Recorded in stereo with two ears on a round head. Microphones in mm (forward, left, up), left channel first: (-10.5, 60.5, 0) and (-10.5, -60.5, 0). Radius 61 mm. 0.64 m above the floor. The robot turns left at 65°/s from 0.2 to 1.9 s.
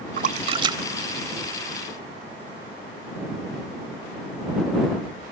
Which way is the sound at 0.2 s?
65° right (ahead or behind).